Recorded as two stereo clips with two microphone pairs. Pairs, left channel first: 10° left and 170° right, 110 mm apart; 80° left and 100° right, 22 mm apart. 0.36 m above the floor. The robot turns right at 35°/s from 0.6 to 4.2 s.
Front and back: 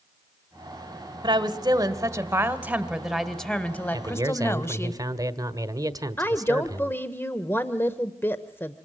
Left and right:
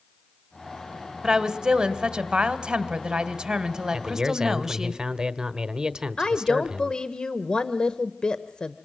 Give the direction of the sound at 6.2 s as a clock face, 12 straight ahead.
10 o'clock.